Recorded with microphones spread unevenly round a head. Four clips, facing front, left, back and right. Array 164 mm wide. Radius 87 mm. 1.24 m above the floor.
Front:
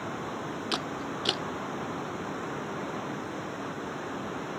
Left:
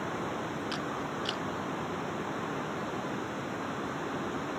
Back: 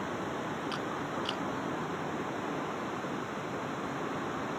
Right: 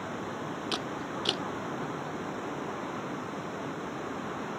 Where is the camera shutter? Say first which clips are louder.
Even, front 1 dB; 40° right.